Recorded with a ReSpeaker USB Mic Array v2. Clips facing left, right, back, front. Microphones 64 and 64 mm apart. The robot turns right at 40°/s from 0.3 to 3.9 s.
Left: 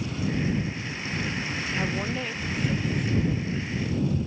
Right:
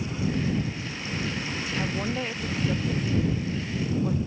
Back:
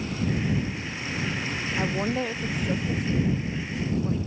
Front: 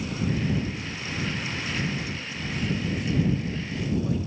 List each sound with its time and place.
1.8 s a woman speaking: 175° left; by 4.2 s 100° right